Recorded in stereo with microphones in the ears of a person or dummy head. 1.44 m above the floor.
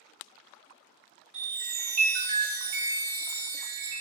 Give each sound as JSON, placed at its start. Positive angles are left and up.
{"t": 1.3, "sound": "a chime", "side_deg": -25, "distance_m": 0.9}